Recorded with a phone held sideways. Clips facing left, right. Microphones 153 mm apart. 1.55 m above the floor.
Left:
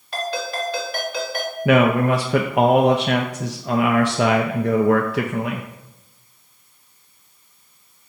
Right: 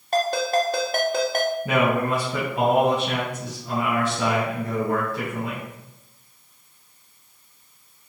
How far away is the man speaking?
About 0.7 m.